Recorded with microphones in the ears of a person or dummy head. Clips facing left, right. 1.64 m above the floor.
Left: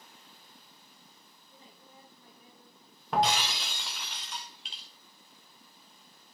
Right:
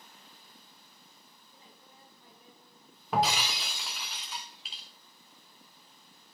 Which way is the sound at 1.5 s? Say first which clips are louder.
Left 4 dB; 70° left (ahead or behind).